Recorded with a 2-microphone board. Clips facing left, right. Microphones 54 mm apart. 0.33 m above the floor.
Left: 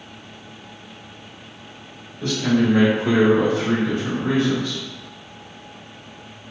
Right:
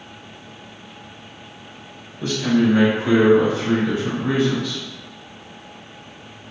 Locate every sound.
2.2 s a man speaking: 10° right (ahead or behind), 1.4 m; by 4.8 s 15° left (ahead or behind), 2.5 m